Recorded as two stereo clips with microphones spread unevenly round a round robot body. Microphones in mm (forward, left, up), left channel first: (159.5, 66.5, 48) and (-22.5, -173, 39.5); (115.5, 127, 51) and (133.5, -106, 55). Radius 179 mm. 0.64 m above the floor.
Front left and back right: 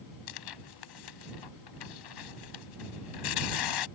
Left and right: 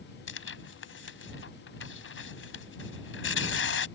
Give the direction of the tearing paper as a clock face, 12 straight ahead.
10 o'clock.